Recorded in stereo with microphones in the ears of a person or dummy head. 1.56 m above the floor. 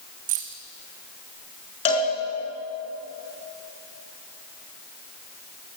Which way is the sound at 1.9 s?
30° left (ahead or behind).